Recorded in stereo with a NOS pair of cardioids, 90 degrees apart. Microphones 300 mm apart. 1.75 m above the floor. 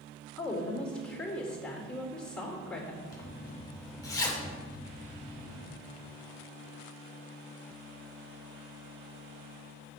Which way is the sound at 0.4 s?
5° left.